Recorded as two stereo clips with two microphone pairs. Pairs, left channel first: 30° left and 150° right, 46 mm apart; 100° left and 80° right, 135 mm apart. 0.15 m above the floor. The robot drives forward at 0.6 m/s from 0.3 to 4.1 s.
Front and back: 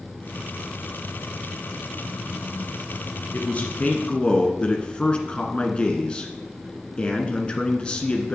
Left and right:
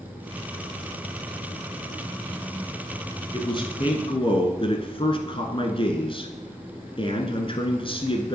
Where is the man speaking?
70° left, 1.4 m; by 8.3 s 100° left, 1.4 m.